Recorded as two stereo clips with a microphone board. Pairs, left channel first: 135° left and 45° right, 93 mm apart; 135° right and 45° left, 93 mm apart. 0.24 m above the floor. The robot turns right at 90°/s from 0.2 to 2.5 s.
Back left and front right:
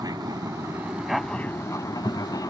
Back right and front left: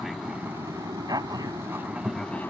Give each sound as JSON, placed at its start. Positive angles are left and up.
{"t": 0.0, "sound": "an aircraft", "azimuth_deg": -40}